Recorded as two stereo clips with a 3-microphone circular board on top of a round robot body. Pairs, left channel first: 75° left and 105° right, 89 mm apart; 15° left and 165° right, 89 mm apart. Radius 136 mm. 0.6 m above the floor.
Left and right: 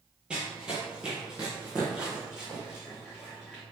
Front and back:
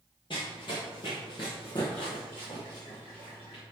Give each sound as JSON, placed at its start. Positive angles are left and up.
{"t": 0.3, "sound": "running footsteps", "azimuth_deg": -25, "distance_m": 0.7}